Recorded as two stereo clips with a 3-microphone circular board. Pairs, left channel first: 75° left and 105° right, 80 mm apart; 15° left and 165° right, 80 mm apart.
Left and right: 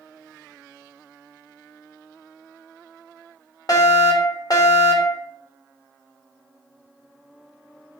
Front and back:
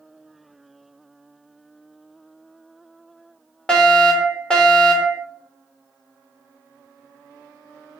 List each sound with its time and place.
3.7 s a fire alarm: 90° left, 3.5 m